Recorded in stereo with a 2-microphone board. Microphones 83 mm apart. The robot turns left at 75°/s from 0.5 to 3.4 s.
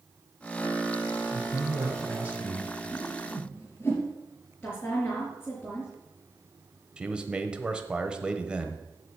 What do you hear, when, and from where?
1.3 s a man speaking: 80° right, 1.4 m; by 2.7 s 175° left, 1.4 m
2.9 s a whoosh: 65° left (ahead or behind), 3 m; by 4.1 s 30° left (ahead or behind), 3 m
4.6 s a woman speaking: 15° left (ahead or behind), 3.5 m
7.0 s a man speaking: 10° right (ahead or behind), 1.0 m